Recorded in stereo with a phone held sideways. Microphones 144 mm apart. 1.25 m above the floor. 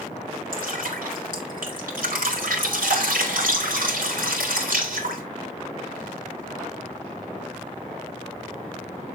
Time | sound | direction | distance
0.5 | dripping | 85° right | 3.5 m